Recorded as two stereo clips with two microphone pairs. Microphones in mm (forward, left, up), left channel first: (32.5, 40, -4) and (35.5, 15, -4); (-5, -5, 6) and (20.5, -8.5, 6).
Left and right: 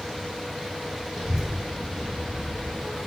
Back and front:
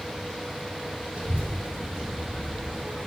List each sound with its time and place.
1.1 s a child speaking: 5° right, 2.5 m; by 3.0 s 10° right, 1.7 m